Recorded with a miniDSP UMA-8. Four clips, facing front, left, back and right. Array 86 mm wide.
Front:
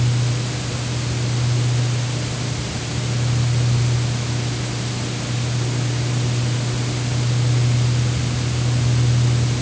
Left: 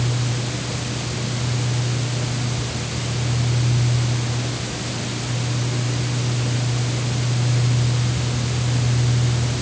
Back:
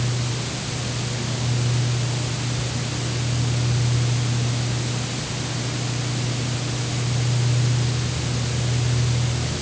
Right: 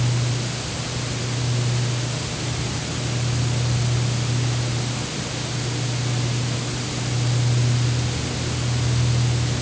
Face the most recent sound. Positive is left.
No sound to turn to.